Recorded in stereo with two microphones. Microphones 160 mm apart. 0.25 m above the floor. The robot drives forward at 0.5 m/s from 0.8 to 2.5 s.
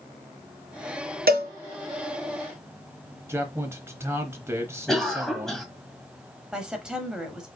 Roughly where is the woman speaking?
Centre.